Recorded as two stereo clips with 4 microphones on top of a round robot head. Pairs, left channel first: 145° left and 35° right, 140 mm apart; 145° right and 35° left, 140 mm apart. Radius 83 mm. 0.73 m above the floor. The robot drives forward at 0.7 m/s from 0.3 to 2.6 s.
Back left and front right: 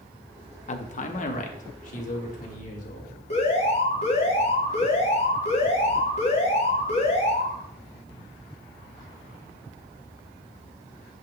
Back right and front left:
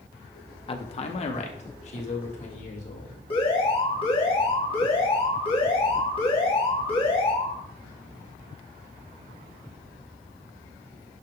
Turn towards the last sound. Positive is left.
turn(degrees=170)